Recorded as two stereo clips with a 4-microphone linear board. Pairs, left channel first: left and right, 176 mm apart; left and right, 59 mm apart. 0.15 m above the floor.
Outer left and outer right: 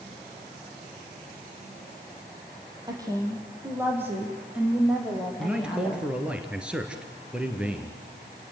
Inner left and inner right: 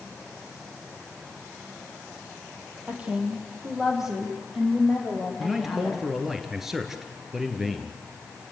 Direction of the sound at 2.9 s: 20° right (ahead or behind).